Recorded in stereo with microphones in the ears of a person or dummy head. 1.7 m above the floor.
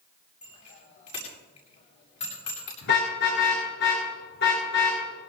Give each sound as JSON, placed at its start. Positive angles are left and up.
{"t": 0.4, "sound": "a bicycle bell", "side_deg": 40, "distance_m": 8.0}
{"t": 2.8, "sound": "a car horn", "side_deg": 65, "distance_m": 10.0}